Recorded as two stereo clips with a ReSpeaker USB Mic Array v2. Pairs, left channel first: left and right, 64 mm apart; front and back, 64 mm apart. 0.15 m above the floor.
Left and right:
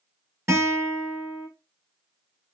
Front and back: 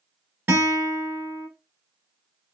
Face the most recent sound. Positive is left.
turn(degrees=-125)